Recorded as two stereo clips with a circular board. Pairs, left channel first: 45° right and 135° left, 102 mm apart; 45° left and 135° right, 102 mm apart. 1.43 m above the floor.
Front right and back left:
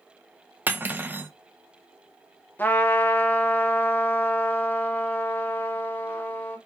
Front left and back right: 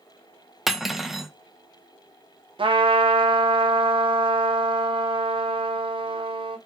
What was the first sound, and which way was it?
Cutlery clinking, 145° left.